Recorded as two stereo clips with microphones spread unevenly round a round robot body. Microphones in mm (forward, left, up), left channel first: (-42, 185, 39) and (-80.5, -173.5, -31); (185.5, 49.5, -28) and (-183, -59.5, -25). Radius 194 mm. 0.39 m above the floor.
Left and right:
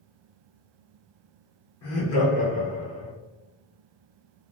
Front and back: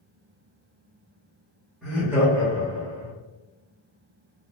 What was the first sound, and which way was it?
Laughter, 105° left.